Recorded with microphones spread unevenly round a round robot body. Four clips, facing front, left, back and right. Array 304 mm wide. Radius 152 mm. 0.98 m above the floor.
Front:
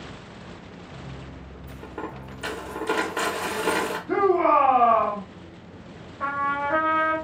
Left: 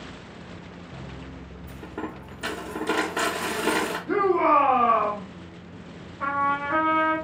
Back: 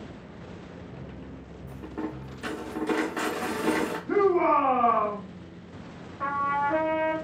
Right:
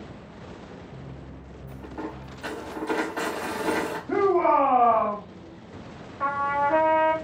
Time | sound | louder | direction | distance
1.7 | a dropped coin | left 1 dB, back 1 dB | 120° left | 1.7 m
4.1 | a shout | even, front 2 dB | 115° left | 1.7 m
6.2 | a trumpet | right 1 dB, front 1 dB | 130° right | 1.0 m